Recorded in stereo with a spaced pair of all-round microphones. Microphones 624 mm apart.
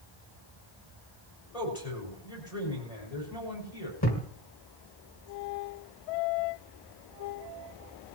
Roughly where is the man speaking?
Left.